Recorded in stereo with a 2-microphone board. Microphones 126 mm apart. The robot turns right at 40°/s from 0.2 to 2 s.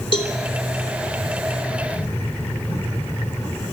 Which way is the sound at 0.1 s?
40° left (ahead or behind).